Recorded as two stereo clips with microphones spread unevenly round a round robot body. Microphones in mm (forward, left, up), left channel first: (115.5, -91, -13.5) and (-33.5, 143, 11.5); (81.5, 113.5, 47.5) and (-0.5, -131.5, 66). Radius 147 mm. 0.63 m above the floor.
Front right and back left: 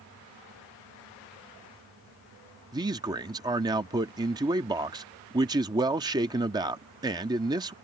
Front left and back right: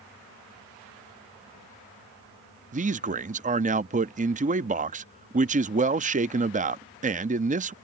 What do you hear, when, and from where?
2.7 s a man speaking: 160° right